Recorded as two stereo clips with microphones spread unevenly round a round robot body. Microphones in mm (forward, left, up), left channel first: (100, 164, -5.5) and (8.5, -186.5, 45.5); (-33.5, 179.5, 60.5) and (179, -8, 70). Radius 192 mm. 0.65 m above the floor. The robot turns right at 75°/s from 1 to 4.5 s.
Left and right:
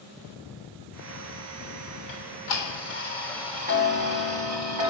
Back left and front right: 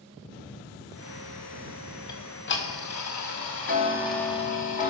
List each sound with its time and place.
2.1 s ticking: 65° left, 3 m; by 4.9 s 115° right, 3 m